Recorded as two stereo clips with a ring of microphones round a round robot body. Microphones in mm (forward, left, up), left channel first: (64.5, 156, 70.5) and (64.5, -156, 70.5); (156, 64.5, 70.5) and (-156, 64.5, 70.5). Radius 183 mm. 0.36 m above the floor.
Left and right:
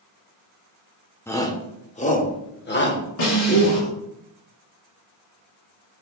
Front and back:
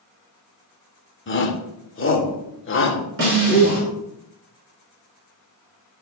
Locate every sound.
1.3 s a shout: 10° left, 1.4 m; by 3.9 s 50° left, 2 m
3.2 s a snare drum: 130° left, 4.5 m